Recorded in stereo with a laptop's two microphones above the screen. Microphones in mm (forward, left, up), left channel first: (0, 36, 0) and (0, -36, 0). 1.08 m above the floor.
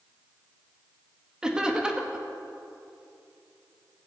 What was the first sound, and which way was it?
Laughter, 10° right (ahead or behind).